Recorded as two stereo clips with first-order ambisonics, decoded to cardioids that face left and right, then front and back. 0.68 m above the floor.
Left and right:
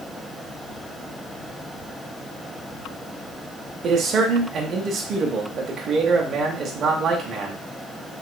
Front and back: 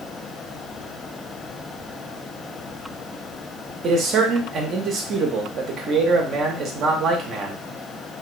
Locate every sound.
3.8 s a man speaking: 135° right, 0.6 m